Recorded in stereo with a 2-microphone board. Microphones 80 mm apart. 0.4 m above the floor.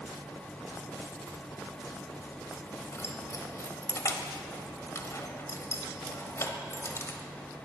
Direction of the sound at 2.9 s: 35° left (ahead or behind).